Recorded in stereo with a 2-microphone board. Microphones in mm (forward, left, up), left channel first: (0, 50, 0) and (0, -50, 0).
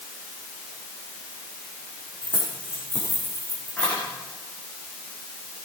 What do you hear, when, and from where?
2.2 s keys jangling: 15° left (ahead or behind), 8.5 m; by 4.0 s 20° left (ahead or behind), 7.5 m